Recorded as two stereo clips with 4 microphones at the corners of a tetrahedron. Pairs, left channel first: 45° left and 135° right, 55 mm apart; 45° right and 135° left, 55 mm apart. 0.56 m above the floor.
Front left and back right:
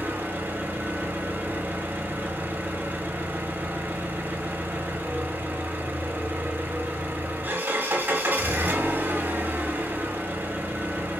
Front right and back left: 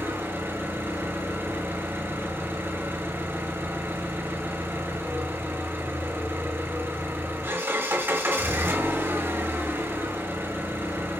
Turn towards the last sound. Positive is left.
turn(degrees=175)